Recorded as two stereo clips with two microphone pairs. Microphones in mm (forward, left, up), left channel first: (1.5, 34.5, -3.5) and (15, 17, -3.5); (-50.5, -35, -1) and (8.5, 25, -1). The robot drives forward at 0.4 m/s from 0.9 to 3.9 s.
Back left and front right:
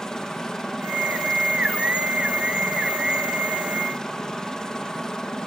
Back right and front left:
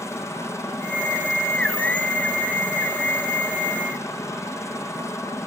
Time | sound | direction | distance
0.0 | a helicopter | straight behind | ?